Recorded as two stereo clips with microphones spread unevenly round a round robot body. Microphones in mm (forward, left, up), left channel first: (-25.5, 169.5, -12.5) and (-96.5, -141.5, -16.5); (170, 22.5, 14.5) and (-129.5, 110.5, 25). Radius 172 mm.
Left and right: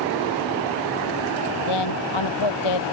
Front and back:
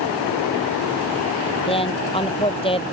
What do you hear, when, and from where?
1.7 s a woman speaking: 55° left